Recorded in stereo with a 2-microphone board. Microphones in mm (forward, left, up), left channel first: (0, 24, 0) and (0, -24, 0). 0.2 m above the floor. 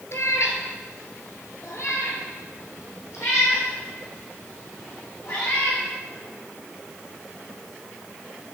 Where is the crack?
No crack in this recording.